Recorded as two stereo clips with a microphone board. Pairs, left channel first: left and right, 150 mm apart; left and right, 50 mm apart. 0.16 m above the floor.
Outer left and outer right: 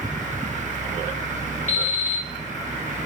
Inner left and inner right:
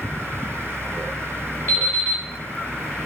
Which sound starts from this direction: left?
An alarm clock, at 1.7 s.